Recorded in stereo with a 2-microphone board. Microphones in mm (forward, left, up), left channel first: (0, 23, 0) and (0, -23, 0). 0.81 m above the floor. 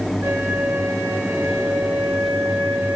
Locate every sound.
0.2 s a flute: 55° right (ahead or behind), 5.5 m